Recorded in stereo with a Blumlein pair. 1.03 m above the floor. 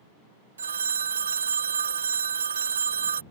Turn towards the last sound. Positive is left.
turn(degrees=-70)